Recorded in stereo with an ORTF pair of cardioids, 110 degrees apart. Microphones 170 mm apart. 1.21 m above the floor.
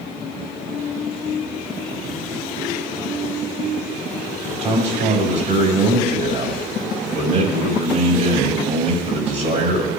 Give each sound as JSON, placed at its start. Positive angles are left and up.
{"t": 4.6, "sound": "a man speaking", "azimuth_deg": -45, "distance_m": 6.0}